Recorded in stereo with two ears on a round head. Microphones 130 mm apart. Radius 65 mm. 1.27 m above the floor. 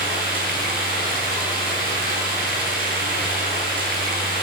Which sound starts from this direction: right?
Running water, at 0.0 s.